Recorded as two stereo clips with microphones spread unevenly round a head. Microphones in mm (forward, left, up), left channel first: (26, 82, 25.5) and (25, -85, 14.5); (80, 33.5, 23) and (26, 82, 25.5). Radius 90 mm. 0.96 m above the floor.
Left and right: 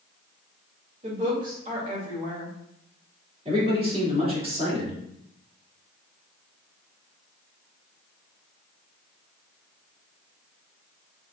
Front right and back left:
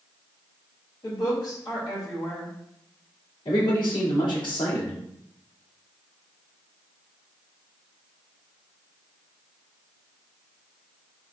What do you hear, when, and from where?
1.0 s a woman speaking: 55° right, 2 m
3.5 s a man speaking: 35° right, 2 m